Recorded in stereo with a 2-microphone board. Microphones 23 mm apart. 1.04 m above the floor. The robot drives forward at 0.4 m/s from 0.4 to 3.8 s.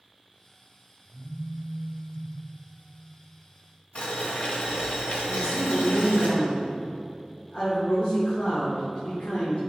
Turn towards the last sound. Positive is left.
turn(degrees=50)  # may be behind; listen again after turning